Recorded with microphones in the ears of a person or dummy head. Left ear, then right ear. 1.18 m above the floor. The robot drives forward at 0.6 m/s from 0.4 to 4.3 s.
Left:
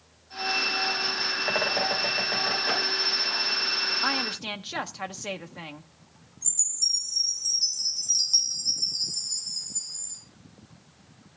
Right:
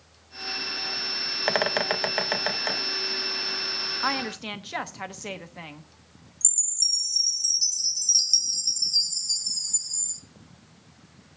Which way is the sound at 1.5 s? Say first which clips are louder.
Right 3 dB; 80° right.